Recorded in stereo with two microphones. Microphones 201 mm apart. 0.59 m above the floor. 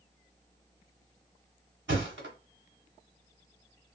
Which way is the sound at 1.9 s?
65° right (ahead or behind).